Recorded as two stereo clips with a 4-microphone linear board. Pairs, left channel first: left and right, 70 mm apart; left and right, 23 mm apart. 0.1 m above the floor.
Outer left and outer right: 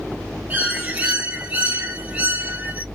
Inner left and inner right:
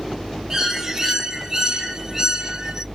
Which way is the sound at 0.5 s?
20° right (ahead or behind).